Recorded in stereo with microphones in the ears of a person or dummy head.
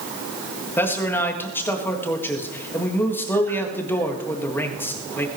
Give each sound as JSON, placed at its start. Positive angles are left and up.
{"t": 0.8, "sound": "a man speaking", "side_deg": 15, "distance_m": 1.7}